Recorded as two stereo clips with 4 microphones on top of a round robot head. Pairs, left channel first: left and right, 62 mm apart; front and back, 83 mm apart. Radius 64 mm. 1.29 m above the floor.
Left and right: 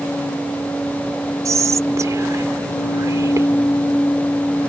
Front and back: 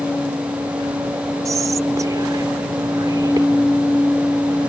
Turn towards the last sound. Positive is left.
turn(degrees=-125)